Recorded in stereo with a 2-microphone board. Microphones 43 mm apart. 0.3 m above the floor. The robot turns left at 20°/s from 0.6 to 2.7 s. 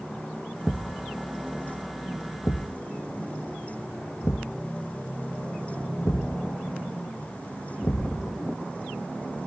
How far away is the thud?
About 1.2 m.